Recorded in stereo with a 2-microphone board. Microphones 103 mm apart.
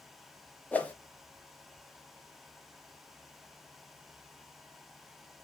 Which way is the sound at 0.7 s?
15° left (ahead or behind).